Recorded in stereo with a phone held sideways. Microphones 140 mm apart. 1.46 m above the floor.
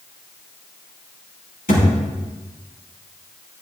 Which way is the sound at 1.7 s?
75° left (ahead or behind).